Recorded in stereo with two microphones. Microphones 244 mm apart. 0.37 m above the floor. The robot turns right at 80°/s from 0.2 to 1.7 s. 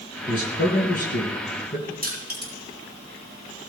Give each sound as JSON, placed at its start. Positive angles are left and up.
{"t": 0.3, "sound": "a man speaking", "side_deg": 25, "distance_m": 5.0}
{"t": 2.0, "sound": "crushing", "side_deg": -35, "distance_m": 4.0}